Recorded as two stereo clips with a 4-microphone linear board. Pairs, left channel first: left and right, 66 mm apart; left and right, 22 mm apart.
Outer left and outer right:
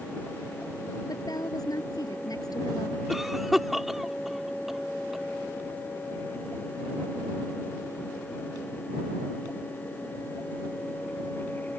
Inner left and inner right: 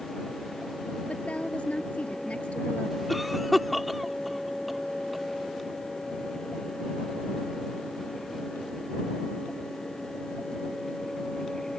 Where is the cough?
5° right (ahead or behind).